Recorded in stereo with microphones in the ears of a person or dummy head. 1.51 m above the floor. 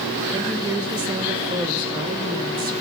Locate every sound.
0.3 s a woman speaking: 20° right (ahead or behind), 1.5 m